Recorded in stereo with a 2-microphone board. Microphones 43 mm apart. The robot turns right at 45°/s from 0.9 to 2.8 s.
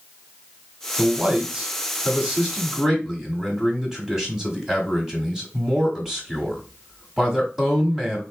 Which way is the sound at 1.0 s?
25° right (ahead or behind).